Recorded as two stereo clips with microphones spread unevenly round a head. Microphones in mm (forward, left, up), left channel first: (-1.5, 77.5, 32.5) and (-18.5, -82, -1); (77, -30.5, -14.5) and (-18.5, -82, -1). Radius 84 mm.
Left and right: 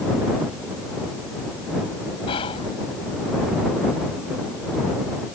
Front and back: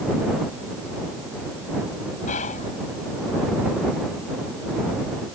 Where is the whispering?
25° left.